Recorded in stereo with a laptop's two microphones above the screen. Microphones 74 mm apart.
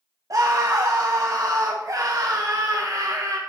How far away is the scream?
About 1.0 m.